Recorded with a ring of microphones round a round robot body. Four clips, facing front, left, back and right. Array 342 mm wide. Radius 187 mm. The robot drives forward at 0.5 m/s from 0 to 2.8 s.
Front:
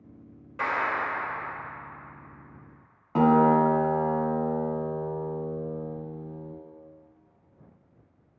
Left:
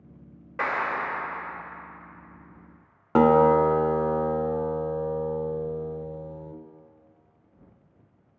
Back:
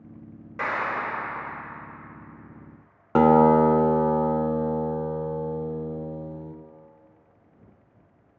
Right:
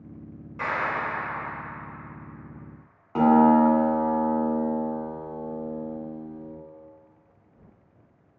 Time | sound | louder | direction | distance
0.6 | a clap | even, even | 105° left | 1.7 m
3.1 | a guitar | even, back 3 dB | 135° left | 0.6 m